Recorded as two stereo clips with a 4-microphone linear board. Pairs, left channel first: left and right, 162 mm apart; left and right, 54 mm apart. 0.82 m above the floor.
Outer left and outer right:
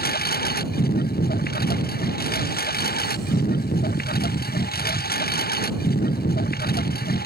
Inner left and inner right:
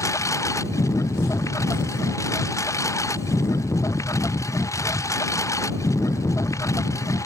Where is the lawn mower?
70° left (ahead or behind).